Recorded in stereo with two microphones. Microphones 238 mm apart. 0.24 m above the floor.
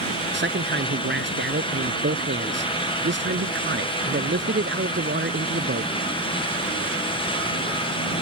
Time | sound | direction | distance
0.3 | a man speaking | 50° right (ahead or behind) | ?